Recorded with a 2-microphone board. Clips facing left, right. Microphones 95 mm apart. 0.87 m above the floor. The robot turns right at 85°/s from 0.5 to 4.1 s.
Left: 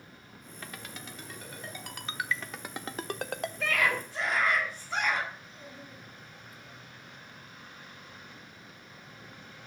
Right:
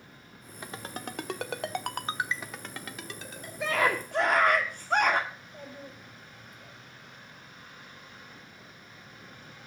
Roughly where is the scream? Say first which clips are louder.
Right 4 dB; behind.